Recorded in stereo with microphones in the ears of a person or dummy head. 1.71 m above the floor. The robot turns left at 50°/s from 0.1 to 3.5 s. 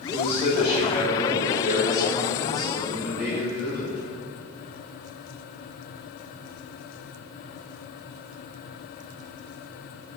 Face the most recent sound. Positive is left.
turn(degrees=-15)